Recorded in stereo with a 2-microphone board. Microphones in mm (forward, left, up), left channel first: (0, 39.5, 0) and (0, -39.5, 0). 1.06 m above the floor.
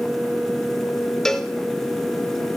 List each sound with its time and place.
1.2 s a cowbell: 5° left (ahead or behind), 0.7 m